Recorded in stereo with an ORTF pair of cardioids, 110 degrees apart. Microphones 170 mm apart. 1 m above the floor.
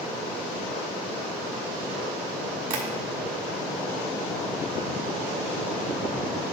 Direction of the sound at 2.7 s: 60° right.